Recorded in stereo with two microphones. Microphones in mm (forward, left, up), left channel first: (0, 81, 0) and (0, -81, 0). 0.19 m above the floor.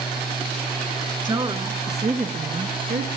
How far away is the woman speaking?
About 2.5 m.